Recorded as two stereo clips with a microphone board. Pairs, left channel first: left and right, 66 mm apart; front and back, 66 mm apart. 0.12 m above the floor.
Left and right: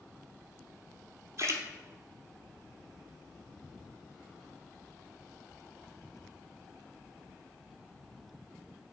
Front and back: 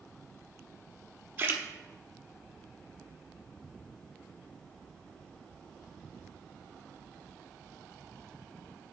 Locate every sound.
1.4 s a splash: 125° right, 0.9 m